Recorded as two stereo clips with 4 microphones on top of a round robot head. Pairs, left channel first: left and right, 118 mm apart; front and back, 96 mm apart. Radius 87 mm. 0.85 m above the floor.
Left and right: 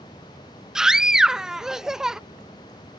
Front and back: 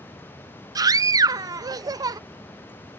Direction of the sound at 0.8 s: 175° right.